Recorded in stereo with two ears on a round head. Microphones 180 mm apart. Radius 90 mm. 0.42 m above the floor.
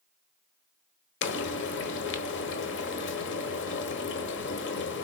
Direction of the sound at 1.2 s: 65° left (ahead or behind).